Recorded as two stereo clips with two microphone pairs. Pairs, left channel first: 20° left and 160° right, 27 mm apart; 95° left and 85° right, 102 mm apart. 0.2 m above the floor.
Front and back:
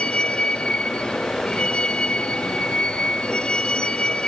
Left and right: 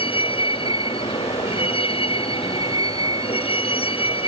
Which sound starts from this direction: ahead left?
A vehicle, at 0.0 s.